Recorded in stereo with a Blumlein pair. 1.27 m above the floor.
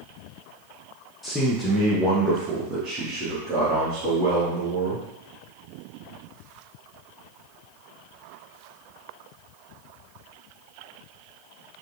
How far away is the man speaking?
About 0.9 m.